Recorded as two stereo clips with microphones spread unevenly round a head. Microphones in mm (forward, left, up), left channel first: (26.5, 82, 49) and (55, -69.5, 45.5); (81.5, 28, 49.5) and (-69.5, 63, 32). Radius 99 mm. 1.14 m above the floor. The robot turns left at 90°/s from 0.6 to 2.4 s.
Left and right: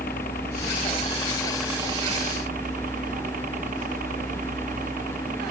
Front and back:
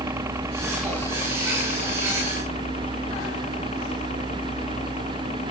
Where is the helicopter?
95° left; by 5.5 s 65° right.